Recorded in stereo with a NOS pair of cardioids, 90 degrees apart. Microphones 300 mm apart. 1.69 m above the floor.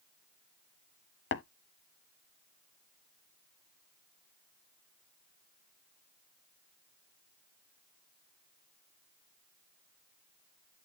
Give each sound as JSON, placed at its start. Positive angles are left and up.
{"t": 1.3, "sound": "tapping", "azimuth_deg": 40, "distance_m": 0.9}